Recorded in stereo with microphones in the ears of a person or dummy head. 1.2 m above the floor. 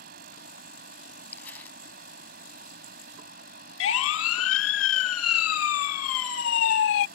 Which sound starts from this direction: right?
A fan, at 0.0 s.